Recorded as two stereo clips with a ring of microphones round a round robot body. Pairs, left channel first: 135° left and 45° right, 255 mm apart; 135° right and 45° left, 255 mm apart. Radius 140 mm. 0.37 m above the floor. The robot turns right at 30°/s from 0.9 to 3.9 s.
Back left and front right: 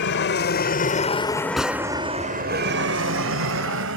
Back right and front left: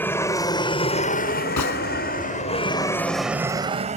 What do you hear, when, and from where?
0.0 s an aircraft: 145° left; by 4.0 s 15° right
1.6 s a gunshot: 135° right; by 1.8 s 125° right